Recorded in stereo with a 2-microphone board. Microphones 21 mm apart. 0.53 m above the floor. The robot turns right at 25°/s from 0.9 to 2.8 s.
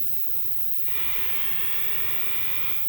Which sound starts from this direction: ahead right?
An insect, at 0.0 s.